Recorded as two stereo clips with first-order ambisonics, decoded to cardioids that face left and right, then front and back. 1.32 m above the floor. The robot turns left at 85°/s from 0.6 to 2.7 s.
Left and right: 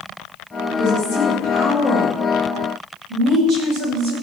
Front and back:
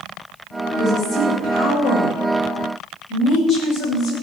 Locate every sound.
0.7 s a woman speaking: 125° left, 7.5 m; by 4.1 s 45° right, 7.5 m